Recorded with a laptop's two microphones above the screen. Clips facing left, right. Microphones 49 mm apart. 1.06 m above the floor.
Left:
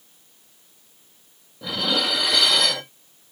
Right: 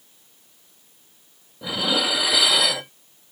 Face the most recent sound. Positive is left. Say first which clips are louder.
# right 1 dB
turn(degrees=-5)  # may be behind; listen again after turning